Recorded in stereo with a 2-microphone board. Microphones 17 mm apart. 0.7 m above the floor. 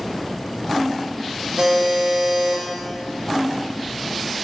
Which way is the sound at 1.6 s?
65° right (ahead or behind).